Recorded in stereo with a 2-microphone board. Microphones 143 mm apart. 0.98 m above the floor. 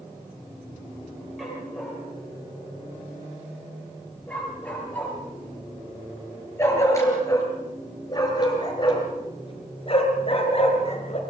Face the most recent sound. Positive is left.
turn(degrees=50)  # may be behind; listen again after turning